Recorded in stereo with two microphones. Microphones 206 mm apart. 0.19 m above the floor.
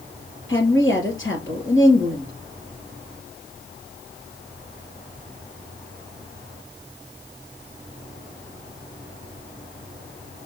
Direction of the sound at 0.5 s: 70° left (ahead or behind).